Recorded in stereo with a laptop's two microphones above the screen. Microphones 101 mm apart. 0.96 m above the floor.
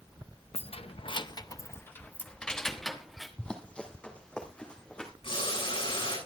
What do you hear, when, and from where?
0.5 s keys jangling: 80° left, 0.6 m; by 3.3 s centre (ahead or behind), 1.4 m
3.4 s running footsteps: 10° left (ahead or behind), 1.2 m
5.2 s boiling: 65° left (ahead or behind), 8 m